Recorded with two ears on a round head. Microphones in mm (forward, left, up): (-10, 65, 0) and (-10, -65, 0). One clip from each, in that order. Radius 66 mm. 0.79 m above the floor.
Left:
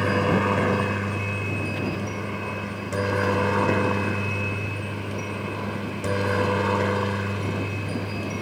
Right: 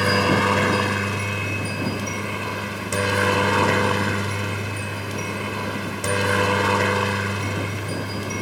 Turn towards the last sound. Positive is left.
turn(degrees=-35)  # may be behind; listen again after turning